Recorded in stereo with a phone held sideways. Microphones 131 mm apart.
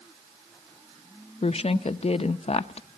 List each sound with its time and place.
1.4 s a woman speaking: 55° left (ahead or behind), 0.6 m